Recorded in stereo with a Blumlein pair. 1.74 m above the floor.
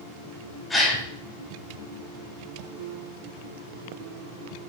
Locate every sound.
0.7 s a gasp: 5° left, 4.5 m